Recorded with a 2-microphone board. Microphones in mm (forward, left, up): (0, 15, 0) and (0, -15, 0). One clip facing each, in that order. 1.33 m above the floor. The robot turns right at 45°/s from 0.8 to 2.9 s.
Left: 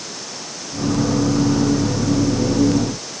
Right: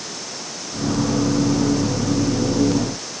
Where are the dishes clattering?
No dishes clattering in this recording.